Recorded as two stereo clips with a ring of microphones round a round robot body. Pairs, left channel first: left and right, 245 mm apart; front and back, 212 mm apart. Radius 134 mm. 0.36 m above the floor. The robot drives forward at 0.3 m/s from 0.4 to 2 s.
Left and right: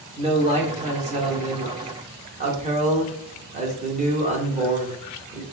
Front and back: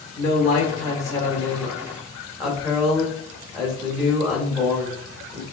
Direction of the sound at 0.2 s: 45° right.